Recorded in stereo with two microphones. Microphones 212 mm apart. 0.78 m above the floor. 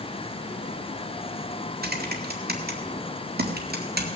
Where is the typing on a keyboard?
50° right (ahead or behind), 1.8 m.